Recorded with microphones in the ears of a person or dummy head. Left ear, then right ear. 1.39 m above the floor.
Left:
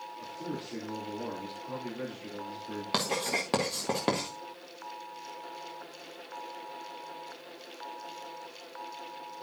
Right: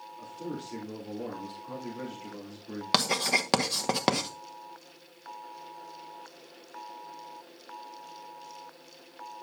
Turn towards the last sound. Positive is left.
turn(degrees=-35)  # may be behind; listen again after turning